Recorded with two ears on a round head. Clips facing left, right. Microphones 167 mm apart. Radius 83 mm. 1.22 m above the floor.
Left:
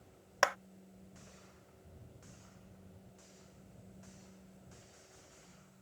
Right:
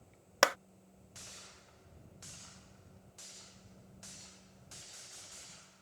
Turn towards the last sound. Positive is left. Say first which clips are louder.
# right 3 dB
turn(degrees=-50)  # may be behind; listen again after turning